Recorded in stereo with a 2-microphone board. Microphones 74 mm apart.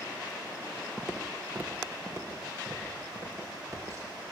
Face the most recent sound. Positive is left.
turn(degrees=-40)  # may be behind; listen again after turning